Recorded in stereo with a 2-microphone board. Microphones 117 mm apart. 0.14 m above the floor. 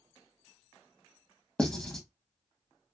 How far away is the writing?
About 1.2 m.